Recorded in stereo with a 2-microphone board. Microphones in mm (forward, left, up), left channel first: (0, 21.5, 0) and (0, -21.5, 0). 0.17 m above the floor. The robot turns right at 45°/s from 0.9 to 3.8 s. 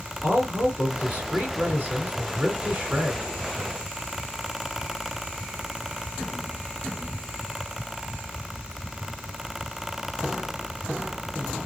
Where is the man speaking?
135° right, 2 m; by 3.2 s 35° right, 2 m.